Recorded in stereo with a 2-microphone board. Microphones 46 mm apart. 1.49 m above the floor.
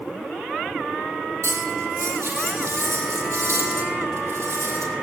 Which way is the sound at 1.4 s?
80° right.